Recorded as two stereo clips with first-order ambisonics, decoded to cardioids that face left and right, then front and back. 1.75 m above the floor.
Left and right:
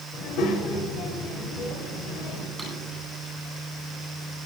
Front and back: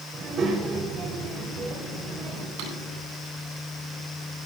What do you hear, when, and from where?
0.1 s a child speaking: 125° left, 4.5 m
2.6 s a drawer: 175° right, 9.5 m